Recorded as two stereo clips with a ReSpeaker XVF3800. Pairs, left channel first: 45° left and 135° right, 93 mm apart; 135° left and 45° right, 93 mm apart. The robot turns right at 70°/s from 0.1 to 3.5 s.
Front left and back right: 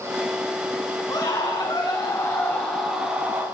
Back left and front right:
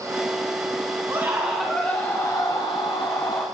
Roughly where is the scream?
Ahead.